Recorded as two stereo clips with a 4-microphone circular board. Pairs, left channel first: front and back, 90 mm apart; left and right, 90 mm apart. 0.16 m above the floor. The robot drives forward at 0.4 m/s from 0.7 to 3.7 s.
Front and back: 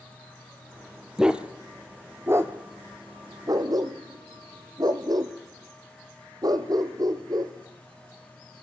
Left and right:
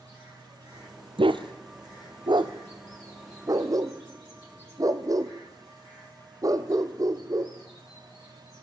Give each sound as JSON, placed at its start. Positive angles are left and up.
{"t": 1.2, "sound": "a dog barking", "azimuth_deg": -95, "distance_m": 1.1}